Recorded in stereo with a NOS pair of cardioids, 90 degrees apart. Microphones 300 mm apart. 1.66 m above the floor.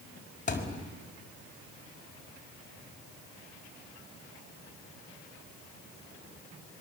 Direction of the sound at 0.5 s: 25° left.